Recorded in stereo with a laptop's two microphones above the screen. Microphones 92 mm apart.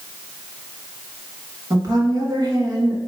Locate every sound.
1.7 s a woman speaking: 45° right (ahead or behind), 1.1 m